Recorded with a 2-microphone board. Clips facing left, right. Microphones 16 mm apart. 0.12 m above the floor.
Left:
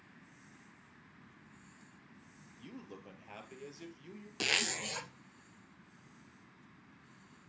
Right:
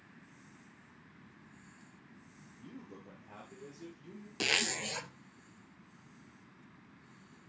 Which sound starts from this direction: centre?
A zipper, at 4.4 s.